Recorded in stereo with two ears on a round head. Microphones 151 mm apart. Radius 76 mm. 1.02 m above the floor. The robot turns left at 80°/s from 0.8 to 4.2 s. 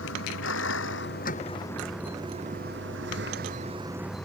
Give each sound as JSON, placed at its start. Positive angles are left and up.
{"t": 0.0, "sound": "a vehicle", "azimuth_deg": 90}